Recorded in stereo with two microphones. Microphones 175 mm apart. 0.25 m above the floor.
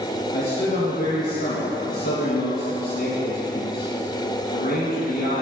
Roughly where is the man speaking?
Left.